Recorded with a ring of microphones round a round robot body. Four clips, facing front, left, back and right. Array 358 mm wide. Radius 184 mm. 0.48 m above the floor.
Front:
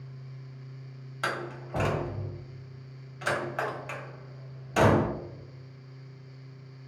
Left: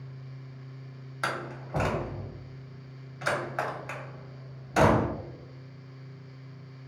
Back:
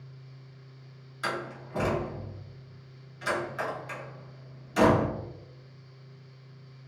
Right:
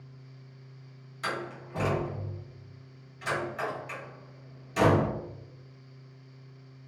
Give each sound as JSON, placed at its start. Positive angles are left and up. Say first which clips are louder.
{"t": 1.2, "sound": "a door slam", "louder": "left 1 dB, front 1 dB", "azimuth_deg": 55, "distance_m": 0.9}